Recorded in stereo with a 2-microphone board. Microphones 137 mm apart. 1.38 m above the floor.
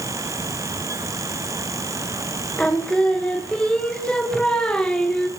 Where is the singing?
5° left (ahead or behind), 1.9 m.